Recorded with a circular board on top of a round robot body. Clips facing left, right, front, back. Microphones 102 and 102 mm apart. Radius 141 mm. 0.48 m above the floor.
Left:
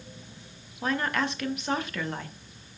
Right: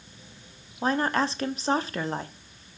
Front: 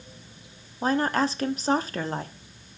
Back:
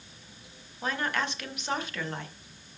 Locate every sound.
0.8 s a woman speaking: 45° right, 0.9 m